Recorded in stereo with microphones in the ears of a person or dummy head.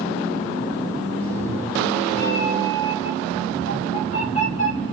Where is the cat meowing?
10° left (ahead or behind), 3.5 m; by 4.9 s 40° left (ahead or behind), 3.5 m.